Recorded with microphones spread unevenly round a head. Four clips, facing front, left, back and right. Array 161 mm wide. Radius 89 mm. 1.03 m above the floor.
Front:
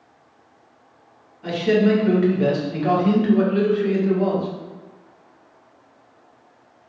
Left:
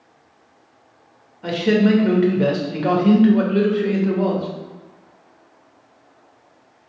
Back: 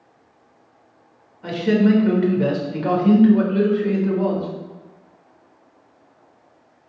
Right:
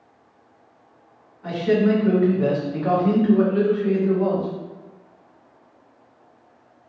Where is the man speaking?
100° left, 1.5 m.